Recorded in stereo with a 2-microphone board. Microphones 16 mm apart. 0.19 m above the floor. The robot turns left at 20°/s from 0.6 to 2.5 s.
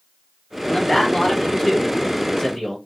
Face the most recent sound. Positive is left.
turn(degrees=80)